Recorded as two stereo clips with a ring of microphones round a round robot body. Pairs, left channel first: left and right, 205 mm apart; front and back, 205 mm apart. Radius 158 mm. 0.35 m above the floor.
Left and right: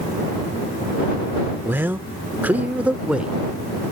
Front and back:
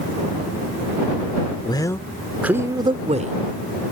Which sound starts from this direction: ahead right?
A man speaking, at 1.6 s.